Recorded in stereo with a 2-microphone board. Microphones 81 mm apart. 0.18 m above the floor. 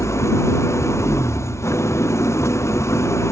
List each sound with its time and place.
0.0 s an engine running: 35° left (ahead or behind)